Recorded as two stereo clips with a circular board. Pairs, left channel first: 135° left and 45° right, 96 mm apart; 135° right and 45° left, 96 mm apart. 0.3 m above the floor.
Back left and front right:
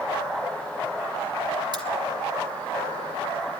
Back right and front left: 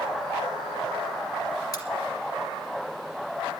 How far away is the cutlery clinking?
About 3 m.